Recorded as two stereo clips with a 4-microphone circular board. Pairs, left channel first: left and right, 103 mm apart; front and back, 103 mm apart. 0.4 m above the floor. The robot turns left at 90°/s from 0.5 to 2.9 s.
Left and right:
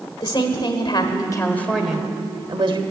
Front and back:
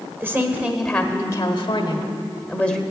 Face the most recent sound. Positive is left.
turn(degrees=-100)